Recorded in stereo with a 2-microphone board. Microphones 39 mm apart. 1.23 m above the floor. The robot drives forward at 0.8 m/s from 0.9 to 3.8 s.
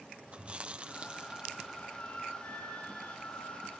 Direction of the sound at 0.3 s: 30° right (ahead or behind).